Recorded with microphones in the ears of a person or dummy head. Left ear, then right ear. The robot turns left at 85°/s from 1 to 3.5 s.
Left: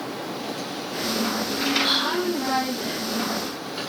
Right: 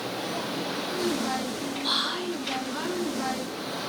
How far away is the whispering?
About 1.1 m.